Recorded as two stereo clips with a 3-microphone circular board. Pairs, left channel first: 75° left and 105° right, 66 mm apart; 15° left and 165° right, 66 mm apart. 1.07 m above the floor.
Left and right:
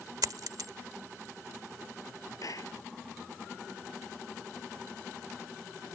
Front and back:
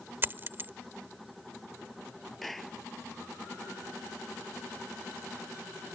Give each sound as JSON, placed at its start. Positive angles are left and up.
{"t": 0.2, "sound": "a dropped coin", "azimuth_deg": -110}
{"t": 2.4, "sound": "a clap", "azimuth_deg": 105}